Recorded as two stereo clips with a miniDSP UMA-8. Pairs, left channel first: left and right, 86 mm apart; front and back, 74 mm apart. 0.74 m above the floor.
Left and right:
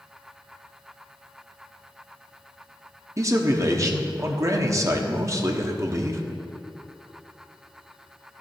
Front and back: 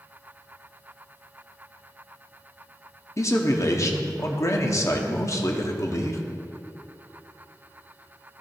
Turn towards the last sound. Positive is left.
turn(degrees=-40)